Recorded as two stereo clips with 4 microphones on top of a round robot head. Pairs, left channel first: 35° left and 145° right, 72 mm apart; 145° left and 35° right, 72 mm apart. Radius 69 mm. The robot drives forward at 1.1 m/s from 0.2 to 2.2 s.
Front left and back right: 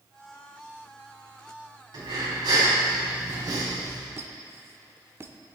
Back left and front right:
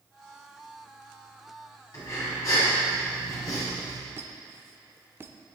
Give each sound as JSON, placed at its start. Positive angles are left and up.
{"t": 1.9, "sound": "breathing", "azimuth_deg": -170, "distance_m": 4.5}
{"t": 4.2, "sound": "a squeak", "azimuth_deg": -90, "distance_m": 1.0}